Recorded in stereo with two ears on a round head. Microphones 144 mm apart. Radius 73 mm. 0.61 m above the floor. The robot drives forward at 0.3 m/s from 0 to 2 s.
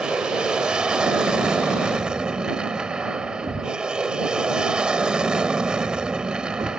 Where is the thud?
20° right (ahead or behind).